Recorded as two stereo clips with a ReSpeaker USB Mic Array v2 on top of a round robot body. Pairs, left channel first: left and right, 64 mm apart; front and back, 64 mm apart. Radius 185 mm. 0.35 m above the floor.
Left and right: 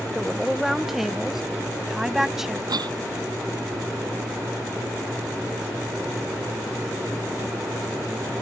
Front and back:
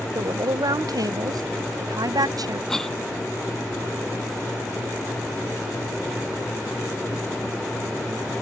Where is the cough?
85° right.